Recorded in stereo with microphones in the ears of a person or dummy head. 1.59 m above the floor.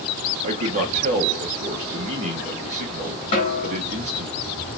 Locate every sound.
0.4 s a man speaking: 40° right (ahead or behind), 1.6 m
3.3 s a snare drum: 30° left (ahead or behind), 1.5 m